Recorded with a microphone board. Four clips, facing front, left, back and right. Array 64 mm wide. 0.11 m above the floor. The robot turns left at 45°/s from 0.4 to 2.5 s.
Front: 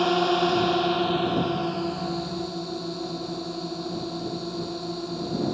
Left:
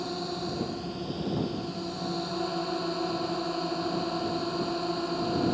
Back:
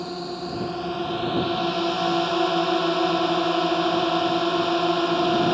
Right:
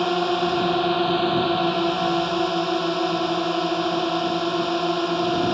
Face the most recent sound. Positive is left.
turn(degrees=-145)